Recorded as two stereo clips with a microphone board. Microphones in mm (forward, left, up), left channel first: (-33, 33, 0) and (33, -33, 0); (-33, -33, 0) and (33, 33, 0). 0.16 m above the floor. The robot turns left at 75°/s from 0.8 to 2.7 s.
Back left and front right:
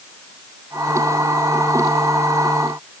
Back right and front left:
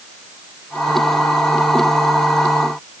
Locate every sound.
Only background noise.